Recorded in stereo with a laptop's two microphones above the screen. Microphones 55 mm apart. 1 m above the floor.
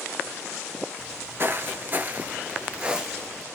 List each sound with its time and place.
1.0 s footsteps: 40° right (ahead or behind), 1.3 m; by 3.5 s 10° right (ahead or behind), 1.4 m